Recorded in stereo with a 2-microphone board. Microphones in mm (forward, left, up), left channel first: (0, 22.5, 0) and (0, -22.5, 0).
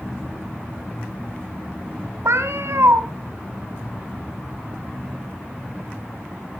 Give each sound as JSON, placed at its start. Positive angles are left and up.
{"t": 2.2, "sound": "a cat meowing", "side_deg": -75, "distance_m": 1.1}